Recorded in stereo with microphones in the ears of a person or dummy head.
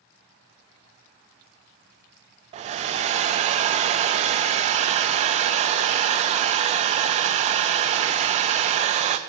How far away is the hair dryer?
About 0.7 m.